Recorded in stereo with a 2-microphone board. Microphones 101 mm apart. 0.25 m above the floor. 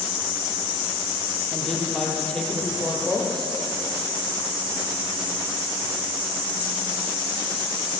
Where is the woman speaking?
10° left (ahead or behind), 7.5 m.